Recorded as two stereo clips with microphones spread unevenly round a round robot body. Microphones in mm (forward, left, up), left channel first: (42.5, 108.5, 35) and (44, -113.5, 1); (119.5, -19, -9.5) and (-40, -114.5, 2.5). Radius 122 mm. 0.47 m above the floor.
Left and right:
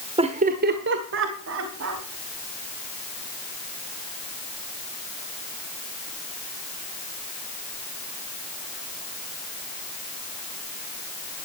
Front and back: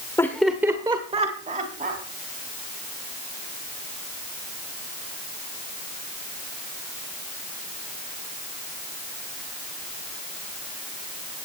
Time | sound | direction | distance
0.2 | laughter | 40° right | 1.2 m